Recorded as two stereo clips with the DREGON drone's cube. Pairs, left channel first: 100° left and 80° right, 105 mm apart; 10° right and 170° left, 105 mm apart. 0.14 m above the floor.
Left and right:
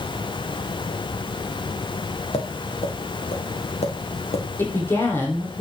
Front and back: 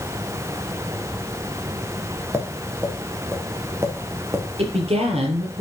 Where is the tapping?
105° left, 3 m.